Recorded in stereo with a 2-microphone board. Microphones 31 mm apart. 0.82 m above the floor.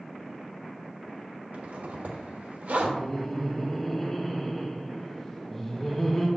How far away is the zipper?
About 1.1 m.